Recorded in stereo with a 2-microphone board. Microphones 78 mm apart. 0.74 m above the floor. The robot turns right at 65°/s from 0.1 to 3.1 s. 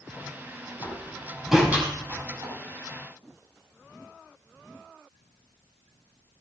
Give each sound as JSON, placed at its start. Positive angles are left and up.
{"t": 0.8, "sound": "a door slam", "side_deg": 40, "distance_m": 5.5}